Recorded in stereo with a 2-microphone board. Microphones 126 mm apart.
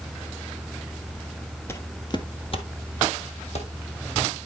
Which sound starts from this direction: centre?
Footsteps, at 1.7 s.